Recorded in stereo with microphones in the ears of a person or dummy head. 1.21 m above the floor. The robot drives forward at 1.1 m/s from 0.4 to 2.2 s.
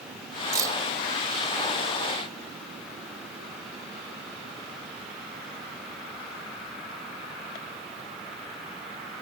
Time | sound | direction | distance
0.5 | keys jangling | 15° right (ahead or behind) | ?